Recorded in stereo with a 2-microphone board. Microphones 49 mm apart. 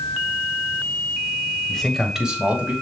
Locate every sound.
1.7 s a man speaking: 15° left (ahead or behind), 1.5 m; by 2.7 s 30° right (ahead or behind), 2.0 m